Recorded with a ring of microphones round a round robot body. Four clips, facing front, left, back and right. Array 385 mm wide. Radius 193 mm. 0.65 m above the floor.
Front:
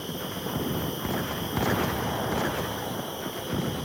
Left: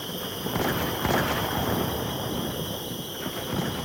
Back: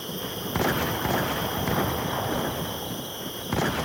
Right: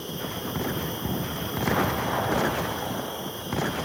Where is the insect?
140° left, 1.6 m.